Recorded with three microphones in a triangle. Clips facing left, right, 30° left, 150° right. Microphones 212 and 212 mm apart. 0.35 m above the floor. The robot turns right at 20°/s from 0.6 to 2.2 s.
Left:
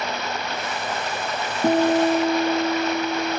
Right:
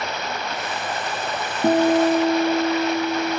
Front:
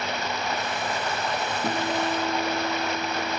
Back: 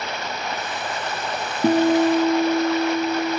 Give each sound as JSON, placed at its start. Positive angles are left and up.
{"t": 1.6, "sound": "a guitar", "azimuth_deg": 180, "distance_m": 2.5}